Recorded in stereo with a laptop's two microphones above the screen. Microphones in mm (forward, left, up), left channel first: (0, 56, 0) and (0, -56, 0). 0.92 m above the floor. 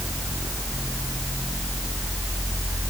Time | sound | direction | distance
0.0 | a fan | centre (ahead or behind) | ?